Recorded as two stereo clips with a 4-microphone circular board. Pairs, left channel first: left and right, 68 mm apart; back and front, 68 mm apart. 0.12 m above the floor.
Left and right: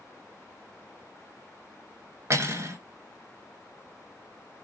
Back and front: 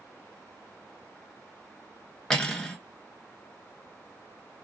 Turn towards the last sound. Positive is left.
turn(degrees=-100)